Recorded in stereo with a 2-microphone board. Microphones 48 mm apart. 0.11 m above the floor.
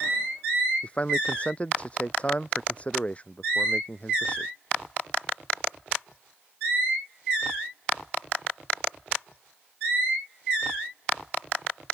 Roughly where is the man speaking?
Left.